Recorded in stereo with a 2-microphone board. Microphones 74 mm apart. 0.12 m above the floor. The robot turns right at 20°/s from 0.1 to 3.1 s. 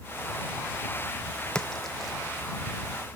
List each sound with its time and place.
1.6 s a splash: 10° left (ahead or behind); by 2.1 s centre (ahead or behind)